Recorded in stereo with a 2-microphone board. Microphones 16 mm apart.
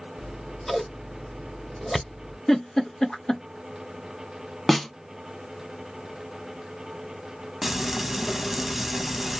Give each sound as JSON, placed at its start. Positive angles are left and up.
{"t": 0.2, "sound": "scissors", "side_deg": 10, "distance_m": 0.9}
{"t": 2.5, "sound": "a giggle", "side_deg": 50, "distance_m": 1.6}
{"t": 4.7, "sound": "a snare drum", "side_deg": 10, "distance_m": 0.9}
{"t": 7.6, "sound": "frying", "side_deg": -10, "distance_m": 1.2}